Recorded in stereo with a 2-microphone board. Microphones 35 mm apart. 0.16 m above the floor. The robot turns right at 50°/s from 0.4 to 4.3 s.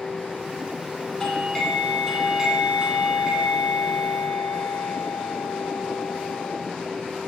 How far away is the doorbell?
About 2.5 m.